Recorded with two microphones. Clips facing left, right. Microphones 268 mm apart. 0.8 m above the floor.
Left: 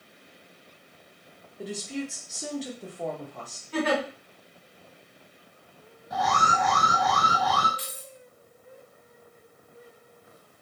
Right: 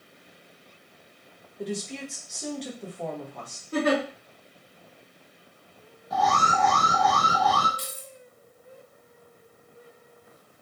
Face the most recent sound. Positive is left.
turn(degrees=-50)  # may be behind; listen again after turning